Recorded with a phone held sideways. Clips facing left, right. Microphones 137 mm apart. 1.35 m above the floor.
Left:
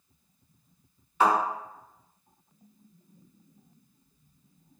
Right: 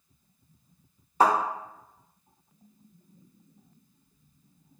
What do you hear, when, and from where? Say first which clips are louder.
1.2 s a thud: right 1 dB; 40° right (ahead or behind), 0.8 m